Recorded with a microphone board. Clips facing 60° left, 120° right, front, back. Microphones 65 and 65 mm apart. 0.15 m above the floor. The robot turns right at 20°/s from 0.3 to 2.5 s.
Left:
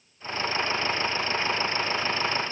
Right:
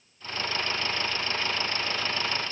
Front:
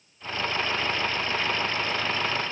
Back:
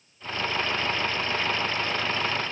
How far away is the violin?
I don't hear a violin.